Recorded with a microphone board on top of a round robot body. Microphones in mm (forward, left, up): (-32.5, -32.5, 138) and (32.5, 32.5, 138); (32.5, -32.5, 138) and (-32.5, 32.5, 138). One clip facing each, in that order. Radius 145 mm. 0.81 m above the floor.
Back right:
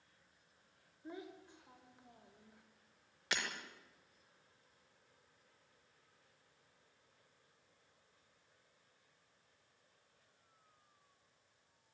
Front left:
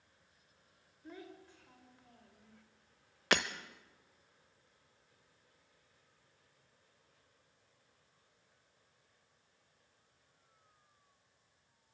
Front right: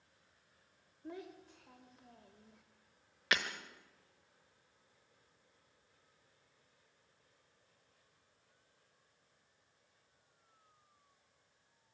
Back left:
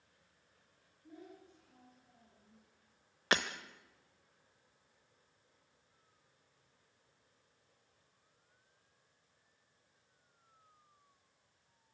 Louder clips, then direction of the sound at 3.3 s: Front left 9 dB, back left 3 dB; 75° left.